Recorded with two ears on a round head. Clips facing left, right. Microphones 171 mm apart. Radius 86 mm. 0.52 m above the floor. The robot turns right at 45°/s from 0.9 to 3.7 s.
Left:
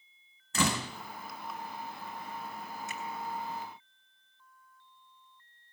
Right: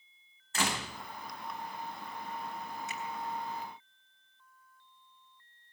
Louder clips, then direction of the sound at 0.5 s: Left 4 dB; 80° left.